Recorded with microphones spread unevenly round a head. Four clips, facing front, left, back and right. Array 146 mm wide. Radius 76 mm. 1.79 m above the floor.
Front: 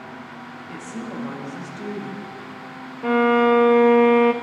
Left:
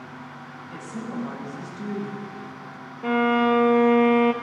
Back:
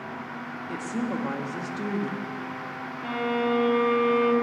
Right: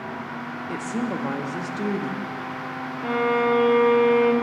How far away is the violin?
About 0.6 m.